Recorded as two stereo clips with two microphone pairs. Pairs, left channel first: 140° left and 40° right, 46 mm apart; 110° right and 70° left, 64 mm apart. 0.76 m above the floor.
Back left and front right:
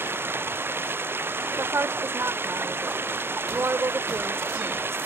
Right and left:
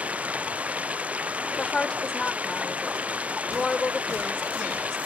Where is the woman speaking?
30° right.